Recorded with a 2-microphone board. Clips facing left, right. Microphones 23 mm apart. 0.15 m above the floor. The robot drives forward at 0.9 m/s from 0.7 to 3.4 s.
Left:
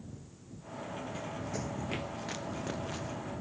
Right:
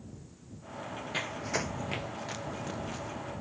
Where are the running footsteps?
60° right (ahead or behind); by 3.2 s 10° left (ahead or behind).